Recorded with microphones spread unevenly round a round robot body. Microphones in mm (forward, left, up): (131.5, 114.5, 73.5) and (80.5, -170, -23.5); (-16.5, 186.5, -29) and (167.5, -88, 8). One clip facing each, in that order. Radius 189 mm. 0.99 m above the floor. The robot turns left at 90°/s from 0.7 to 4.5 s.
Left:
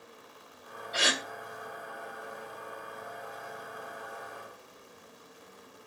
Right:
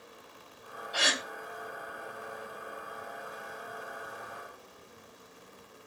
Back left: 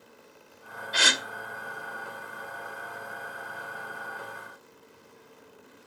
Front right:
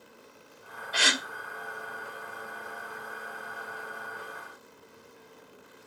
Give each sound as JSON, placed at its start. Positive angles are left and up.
{"t": 0.9, "sound": "a gasp", "azimuth_deg": 145, "distance_m": 1.2}